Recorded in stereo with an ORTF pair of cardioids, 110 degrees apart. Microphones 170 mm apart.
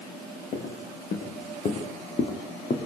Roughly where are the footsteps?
Ahead left.